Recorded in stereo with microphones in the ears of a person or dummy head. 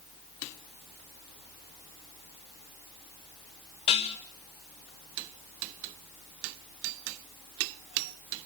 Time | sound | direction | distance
3.9 | dishes clattering | 30° left (ahead or behind) | 1.0 m